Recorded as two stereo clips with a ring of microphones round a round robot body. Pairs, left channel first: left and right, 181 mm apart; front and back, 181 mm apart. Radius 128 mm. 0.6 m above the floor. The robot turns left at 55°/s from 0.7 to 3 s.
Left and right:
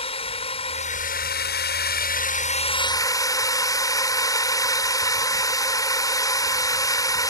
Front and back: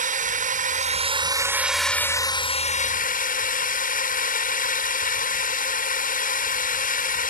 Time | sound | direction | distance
0.0 | a drone | 150° left | ?